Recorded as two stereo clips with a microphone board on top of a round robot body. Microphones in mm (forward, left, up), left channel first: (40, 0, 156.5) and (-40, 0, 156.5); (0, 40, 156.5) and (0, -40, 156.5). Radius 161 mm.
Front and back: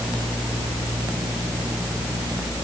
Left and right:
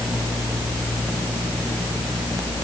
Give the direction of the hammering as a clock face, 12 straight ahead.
I don't hear hammering.